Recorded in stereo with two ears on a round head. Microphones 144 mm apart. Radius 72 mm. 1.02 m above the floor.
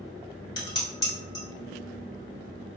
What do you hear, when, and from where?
0.6 s dishes clattering: 25° left (ahead or behind), 1.3 m